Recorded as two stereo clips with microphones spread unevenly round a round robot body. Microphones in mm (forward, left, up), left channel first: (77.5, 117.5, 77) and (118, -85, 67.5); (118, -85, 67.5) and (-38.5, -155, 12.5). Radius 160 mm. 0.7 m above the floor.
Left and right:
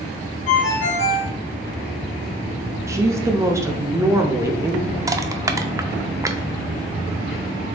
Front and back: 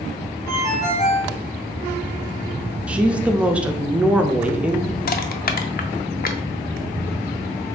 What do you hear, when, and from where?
0.5 s a ringtone: 105° left, 1.1 m
2.9 s a woman speaking: 130° right, 0.6 m
5.1 s crushing: 5° right, 0.6 m